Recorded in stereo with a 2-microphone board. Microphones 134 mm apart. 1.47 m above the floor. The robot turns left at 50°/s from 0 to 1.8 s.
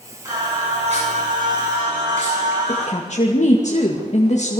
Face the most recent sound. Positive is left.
turn(degrees=60)  # may be behind; listen again after turning